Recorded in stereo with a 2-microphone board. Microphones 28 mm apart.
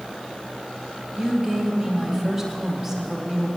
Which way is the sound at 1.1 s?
10° right (ahead or behind).